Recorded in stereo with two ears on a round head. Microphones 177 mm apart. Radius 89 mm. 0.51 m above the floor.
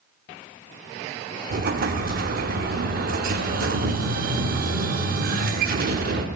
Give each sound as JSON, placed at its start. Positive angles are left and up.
{"t": 1.5, "sound": "an explosion", "side_deg": -50, "distance_m": 0.7}